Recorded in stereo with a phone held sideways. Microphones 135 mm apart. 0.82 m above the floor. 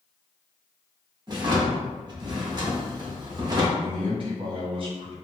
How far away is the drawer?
About 0.8 m.